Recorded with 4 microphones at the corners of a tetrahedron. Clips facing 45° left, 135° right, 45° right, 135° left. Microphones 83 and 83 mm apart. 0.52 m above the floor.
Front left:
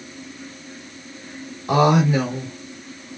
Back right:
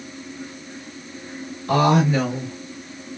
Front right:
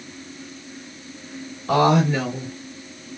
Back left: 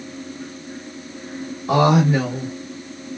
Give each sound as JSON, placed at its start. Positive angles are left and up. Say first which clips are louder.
{"t": 1.7, "sound": "a woman speaking", "louder": "front left 1 dB, back left 2 dB", "azimuth_deg": 95, "distance_m": 1.2}